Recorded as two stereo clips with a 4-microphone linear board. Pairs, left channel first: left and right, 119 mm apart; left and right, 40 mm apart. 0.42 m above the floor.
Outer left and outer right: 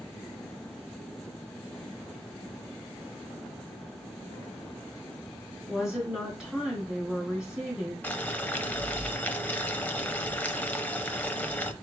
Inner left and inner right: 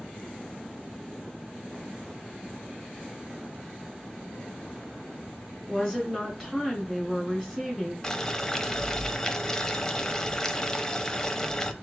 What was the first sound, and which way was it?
A woman speaking, 5° right (ahead or behind).